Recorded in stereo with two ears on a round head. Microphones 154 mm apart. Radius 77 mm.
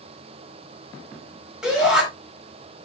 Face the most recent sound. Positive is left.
turn(degrees=-5)  # may be behind; listen again after turning